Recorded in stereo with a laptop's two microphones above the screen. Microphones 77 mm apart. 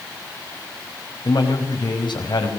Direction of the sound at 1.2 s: 75° left (ahead or behind).